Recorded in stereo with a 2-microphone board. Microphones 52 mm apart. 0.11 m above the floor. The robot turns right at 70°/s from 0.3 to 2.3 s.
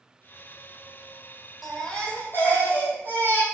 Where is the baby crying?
Straight ahead, 2.5 m; by 3.4 s 50° left, 2.5 m.